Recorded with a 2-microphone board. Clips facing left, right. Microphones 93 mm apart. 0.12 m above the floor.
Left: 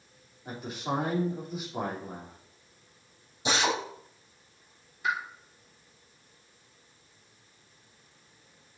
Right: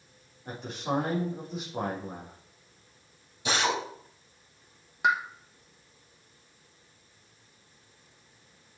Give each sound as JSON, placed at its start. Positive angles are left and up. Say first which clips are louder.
{"t": 0.5, "sound": "a man speaking", "louder": "right 1 dB", "side_deg": 5, "distance_m": 3.5}
{"t": 3.5, "sound": "a drill", "louder": "even", "side_deg": 20, "distance_m": 3.5}
{"t": 5.0, "sound": "a pop", "louder": "right 5 dB", "side_deg": -80, "distance_m": 1.4}